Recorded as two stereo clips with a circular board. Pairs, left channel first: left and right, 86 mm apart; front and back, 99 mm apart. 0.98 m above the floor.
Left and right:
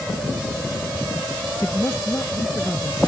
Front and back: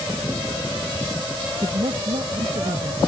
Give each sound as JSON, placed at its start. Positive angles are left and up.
{"t": 1.6, "sound": "a man speaking", "azimuth_deg": 150}